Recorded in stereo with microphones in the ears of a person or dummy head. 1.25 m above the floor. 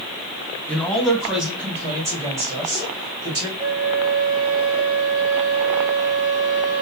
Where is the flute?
45° right (ahead or behind), 1.4 m.